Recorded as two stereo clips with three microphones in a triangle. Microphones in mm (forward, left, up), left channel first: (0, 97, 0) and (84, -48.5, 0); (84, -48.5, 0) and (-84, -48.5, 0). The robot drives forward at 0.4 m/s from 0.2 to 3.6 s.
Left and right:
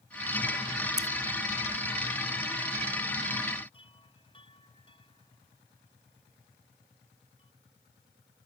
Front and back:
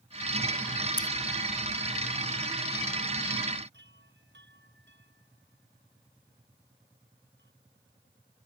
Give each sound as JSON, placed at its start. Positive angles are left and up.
{"t": 1.0, "sound": "scissors", "azimuth_deg": 170}
{"t": 3.7, "sound": "a chime", "azimuth_deg": 180}